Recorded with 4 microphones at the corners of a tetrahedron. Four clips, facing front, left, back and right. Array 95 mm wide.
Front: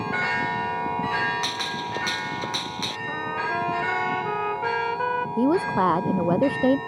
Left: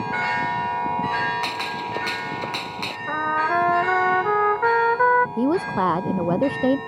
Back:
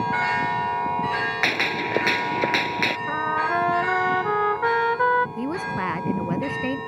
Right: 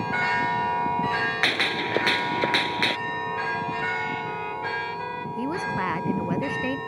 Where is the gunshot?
145° right.